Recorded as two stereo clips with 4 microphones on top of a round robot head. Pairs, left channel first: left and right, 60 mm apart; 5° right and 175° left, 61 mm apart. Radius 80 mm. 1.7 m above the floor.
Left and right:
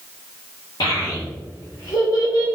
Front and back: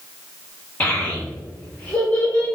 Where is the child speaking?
60° left, 1.7 m.